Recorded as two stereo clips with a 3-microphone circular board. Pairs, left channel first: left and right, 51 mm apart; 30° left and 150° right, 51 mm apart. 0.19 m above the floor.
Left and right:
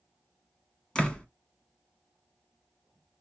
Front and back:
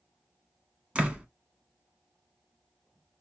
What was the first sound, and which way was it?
A door slam, 155° left.